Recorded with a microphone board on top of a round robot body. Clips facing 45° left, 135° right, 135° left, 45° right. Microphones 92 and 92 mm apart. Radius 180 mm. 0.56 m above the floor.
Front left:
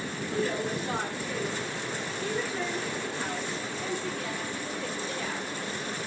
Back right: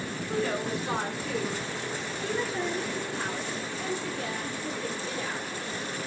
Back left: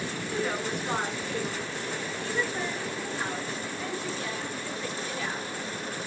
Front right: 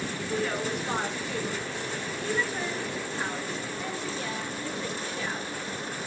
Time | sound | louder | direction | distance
0.3 | a woman speaking | even, front right 1 dB | 135° right | 6 m